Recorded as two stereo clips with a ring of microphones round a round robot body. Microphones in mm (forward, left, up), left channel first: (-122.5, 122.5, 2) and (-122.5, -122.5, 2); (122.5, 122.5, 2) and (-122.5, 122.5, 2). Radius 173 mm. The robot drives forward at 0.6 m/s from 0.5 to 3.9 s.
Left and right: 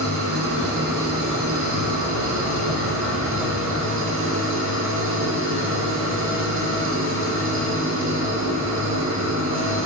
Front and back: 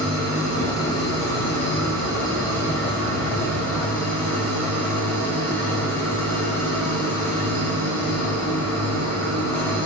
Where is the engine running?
115° right, 9.5 m; by 9.9 s 125° right, 10.5 m.